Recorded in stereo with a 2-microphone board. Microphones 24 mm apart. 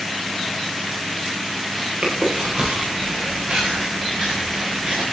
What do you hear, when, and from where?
2.0 s chewing: 50° right (ahead or behind), 7.5 m